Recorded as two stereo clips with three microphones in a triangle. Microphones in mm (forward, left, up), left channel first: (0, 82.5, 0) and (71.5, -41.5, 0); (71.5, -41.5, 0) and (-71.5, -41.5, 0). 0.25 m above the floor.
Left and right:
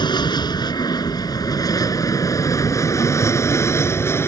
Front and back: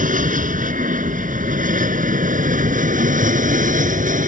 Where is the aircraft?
175° left; by 4.3 s 170° right.